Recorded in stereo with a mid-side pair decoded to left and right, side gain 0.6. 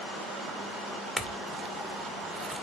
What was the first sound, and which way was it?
A clink, 15° right.